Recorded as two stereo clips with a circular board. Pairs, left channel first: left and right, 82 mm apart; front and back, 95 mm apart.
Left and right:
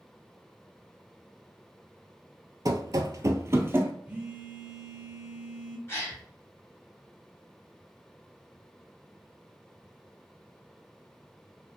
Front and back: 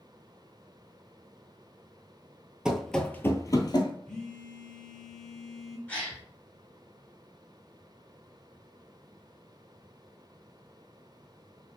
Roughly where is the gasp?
Ahead left.